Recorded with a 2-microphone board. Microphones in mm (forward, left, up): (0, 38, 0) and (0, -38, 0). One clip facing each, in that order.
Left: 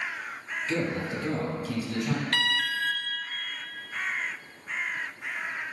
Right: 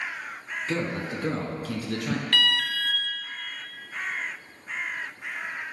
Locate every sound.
0.7 s a man speaking: 50° right (ahead or behind), 1.7 m; by 2.2 s 60° right (ahead or behind), 2.5 m
2.3 s an alarm: 30° left (ahead or behind), 0.9 m